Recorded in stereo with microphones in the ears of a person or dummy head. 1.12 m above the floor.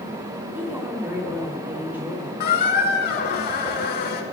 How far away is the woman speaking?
About 2.5 m.